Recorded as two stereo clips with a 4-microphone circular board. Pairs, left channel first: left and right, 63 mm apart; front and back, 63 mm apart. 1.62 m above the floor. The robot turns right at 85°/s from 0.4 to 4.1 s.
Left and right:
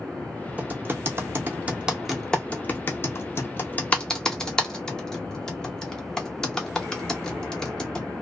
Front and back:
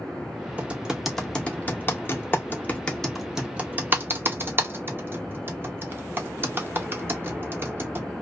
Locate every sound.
0.6 s typing on a keyboard: 135° right, 0.7 m; by 8.1 s 165° left, 0.7 m